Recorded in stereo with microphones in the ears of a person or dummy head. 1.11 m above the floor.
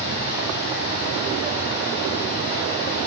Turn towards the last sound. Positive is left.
turn(degrees=55)  # may be behind; listen again after turning